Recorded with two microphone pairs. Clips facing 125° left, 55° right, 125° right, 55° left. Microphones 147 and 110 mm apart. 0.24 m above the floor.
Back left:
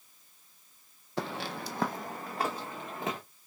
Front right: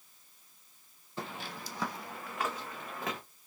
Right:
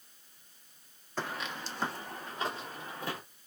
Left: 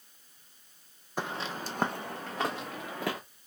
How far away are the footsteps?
About 0.6 m.